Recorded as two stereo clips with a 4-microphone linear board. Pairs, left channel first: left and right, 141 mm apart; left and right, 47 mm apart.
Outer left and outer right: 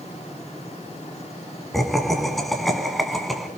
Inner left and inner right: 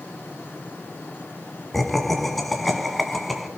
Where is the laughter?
Centre (ahead or behind), 2 m.